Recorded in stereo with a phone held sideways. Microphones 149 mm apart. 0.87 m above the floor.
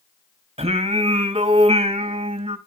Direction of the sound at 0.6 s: 40° right (ahead or behind).